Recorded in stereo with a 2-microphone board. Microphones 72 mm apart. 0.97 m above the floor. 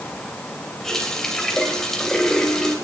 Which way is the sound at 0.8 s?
5° left (ahead or behind).